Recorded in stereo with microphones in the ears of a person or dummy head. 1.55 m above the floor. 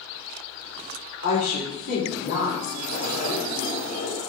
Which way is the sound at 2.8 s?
50° left (ahead or behind).